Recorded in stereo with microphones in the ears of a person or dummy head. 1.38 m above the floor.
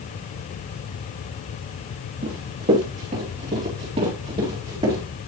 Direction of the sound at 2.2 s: 40° right (ahead or behind).